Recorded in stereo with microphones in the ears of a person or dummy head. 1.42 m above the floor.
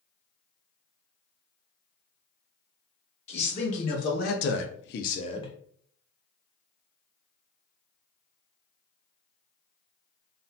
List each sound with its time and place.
3.3 s a man speaking: 25° left (ahead or behind), 1.2 m